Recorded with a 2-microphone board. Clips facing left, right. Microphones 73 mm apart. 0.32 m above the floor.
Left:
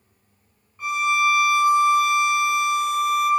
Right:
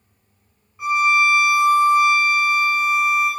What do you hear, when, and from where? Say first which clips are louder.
0.8 s a violin: right 4 dB; 10° right (ahead or behind), 0.9 m